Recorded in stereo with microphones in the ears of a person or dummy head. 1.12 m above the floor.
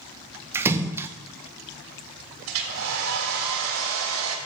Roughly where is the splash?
Centre.